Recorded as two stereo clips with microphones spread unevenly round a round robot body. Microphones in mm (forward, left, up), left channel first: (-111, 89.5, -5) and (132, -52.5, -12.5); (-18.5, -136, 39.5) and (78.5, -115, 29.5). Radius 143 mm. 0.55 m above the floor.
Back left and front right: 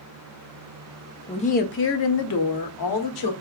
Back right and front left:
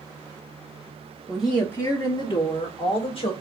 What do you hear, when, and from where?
1.3 s a woman speaking: 85° left, 0.7 m; by 3.3 s 155° left, 1.5 m